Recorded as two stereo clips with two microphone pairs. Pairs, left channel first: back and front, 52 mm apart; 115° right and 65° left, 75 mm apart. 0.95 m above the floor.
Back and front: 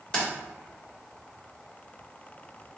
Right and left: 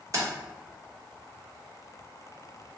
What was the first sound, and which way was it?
Keys jangling, 110° left.